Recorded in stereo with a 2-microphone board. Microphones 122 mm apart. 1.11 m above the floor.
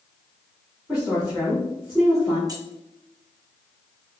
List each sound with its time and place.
0.9 s a woman speaking: 5° right (ahead or behind), 2.5 m
2.5 s keys jangling: 30° right (ahead or behind), 1.0 m